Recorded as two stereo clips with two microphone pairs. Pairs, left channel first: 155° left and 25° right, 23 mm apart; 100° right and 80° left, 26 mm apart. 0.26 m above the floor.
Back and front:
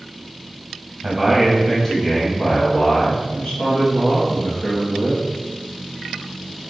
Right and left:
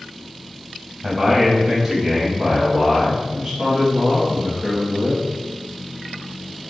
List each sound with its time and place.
1.0 s a man speaking: 15° right, 1.1 m; by 5.2 s 160° left, 3.5 m